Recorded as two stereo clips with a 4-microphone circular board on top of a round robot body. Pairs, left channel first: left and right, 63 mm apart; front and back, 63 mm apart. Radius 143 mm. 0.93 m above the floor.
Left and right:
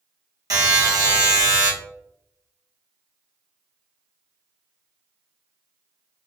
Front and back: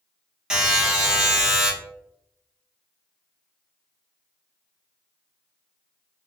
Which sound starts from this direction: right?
A buzzer, at 0.5 s.